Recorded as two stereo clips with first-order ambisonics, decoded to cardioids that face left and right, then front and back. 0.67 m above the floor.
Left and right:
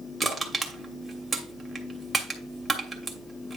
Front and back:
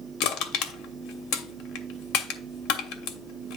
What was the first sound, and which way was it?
Crushing, 10° right.